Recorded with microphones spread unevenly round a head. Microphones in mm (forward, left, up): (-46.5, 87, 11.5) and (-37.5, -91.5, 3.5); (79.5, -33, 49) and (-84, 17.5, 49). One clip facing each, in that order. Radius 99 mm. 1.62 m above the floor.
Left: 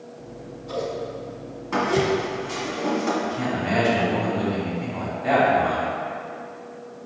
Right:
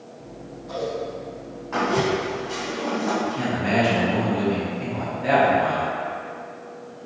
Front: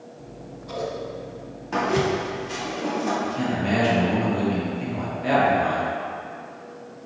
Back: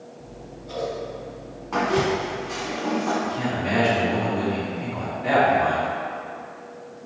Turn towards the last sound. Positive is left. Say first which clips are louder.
# right 1 dB, front 1 dB
turn(degrees=-50)